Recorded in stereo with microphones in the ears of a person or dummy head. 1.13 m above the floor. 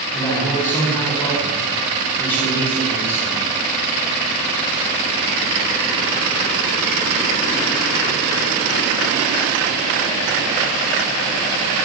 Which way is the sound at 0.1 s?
15° left (ahead or behind).